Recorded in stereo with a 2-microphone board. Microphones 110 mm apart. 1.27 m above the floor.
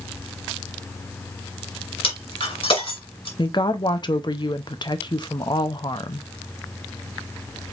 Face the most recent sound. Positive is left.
turn(degrees=40)  # may be behind; listen again after turning